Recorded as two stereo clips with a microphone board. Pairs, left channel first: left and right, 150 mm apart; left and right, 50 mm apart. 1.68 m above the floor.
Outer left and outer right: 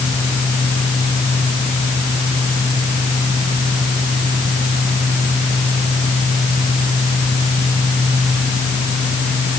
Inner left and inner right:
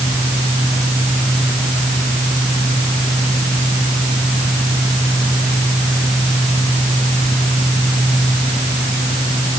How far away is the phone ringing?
No phone ringing in this recording.